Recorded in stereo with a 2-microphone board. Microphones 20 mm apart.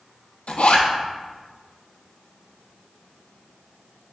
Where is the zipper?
65° left (ahead or behind), 0.6 m.